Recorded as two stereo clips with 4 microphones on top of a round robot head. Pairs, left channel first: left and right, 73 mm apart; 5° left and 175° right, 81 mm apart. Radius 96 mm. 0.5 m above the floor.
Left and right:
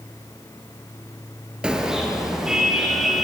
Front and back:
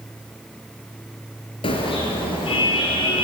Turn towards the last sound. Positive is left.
turn(degrees=-5)